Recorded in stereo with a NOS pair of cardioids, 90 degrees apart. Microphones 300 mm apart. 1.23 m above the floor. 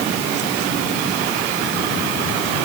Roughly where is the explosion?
No explosion in this recording.